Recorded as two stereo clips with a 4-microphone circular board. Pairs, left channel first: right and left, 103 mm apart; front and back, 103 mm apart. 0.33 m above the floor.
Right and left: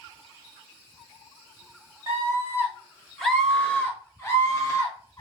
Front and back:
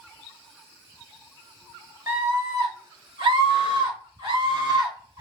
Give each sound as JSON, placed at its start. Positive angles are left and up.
{"t": 2.1, "sound": "a scream", "azimuth_deg": 135, "distance_m": 1.3}